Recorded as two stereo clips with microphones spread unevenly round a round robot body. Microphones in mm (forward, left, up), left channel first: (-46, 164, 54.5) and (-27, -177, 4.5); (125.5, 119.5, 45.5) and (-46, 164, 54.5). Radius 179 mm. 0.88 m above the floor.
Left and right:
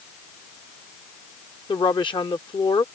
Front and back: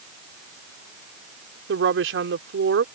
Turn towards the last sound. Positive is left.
turn(degrees=175)